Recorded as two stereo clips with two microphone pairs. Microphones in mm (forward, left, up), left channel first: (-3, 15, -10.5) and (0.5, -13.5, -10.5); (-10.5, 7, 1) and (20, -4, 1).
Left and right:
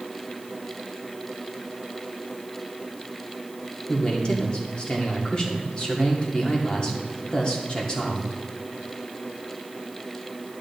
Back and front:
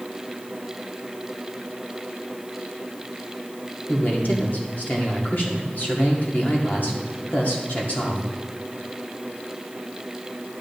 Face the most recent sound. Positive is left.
turn(degrees=150)